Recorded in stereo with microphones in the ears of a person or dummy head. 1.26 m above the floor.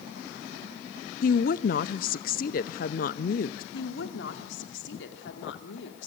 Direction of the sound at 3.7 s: 75° left (ahead or behind).